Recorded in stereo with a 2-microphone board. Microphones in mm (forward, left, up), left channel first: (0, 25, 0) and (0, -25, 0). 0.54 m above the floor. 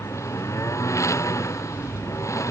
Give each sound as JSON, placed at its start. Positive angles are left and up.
{"t": 0.0, "sound": "a lawn mower", "side_deg": 85}